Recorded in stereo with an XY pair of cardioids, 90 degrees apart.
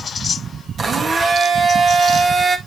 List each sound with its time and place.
0.8 s a blender: 45° right, 1.5 m